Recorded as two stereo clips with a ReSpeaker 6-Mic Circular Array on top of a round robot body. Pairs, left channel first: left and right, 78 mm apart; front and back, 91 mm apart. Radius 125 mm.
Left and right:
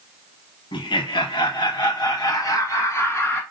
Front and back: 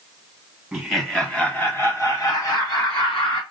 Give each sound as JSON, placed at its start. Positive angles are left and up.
{"t": 0.7, "sound": "laughter", "azimuth_deg": 90, "distance_m": 1.3}